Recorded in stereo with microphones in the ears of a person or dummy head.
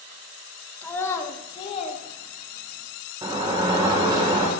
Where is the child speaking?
10° left (ahead or behind), 1.5 m; by 2.9 s 50° left (ahead or behind), 2.5 m.